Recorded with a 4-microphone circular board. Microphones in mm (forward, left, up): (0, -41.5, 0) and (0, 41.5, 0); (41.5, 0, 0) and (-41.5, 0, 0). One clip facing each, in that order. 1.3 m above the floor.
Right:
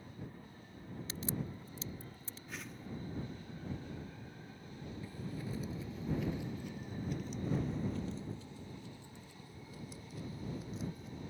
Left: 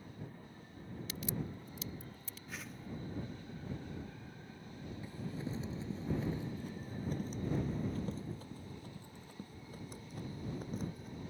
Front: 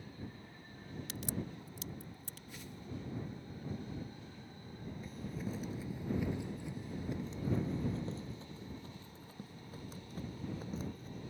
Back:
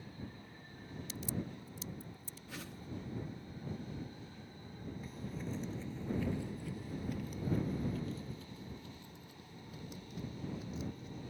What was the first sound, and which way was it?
A crack, 30° right.